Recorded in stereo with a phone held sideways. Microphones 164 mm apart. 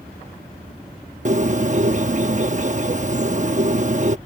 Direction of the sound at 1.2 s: 45° right (ahead or behind).